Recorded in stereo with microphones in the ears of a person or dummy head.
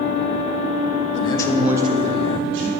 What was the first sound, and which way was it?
A man speaking, 35° left (ahead or behind).